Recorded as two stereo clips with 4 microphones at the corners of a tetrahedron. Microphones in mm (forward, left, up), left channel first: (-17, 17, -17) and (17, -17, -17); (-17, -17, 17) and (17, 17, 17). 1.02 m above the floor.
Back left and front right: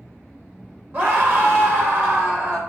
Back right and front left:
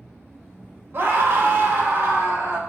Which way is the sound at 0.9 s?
Straight ahead.